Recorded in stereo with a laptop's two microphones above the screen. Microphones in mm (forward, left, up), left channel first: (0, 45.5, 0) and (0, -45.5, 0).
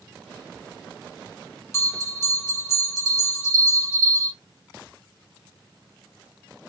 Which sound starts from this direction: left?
A bell, at 1.7 s.